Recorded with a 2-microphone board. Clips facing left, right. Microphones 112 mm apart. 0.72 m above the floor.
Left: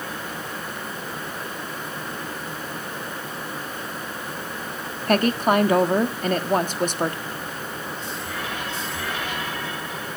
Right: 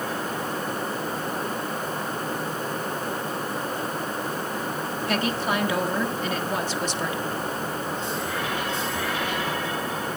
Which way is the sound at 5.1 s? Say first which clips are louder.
Left 7 dB; 50° left (ahead or behind).